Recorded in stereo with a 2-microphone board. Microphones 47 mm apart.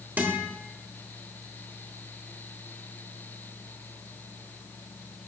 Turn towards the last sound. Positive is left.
turn(degrees=-40)  # may be behind; listen again after turning